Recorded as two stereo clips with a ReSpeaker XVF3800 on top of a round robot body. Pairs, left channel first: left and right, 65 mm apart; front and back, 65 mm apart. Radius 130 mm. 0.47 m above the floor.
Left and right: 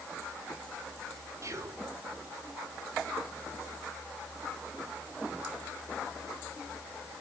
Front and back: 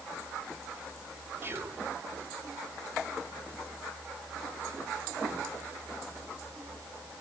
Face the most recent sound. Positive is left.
turn(degrees=-130)